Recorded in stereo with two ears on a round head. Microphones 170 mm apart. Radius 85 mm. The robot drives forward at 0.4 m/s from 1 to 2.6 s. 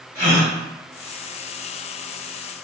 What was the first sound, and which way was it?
A gasp, 15° left (ahead or behind).